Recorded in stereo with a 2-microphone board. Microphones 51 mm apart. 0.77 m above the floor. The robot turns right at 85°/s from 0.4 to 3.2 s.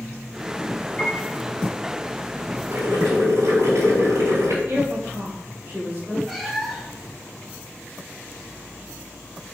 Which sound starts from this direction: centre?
A cat meowing, at 6.3 s.